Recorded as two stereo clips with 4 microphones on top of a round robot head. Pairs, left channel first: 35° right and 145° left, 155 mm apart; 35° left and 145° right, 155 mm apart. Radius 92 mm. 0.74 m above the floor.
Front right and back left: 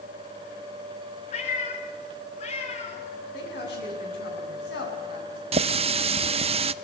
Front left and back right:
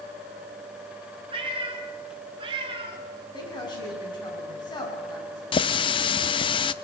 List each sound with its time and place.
1.3 s a cat meowing: 85° right, 3.5 m
3.3 s a woman speaking: 25° right, 8 m
5.5 s a running tap: 95° left, 0.7 m